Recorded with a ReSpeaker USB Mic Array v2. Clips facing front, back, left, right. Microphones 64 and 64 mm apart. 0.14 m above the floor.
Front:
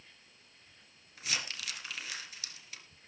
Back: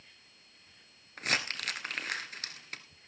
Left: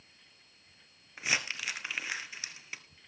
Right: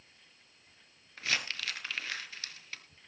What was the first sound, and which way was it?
Crumpling, 165° left.